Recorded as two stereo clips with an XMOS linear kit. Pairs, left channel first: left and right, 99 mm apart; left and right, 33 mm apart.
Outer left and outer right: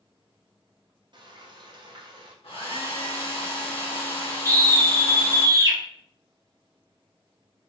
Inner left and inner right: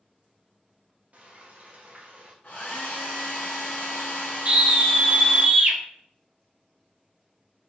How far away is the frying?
About 0.6 m.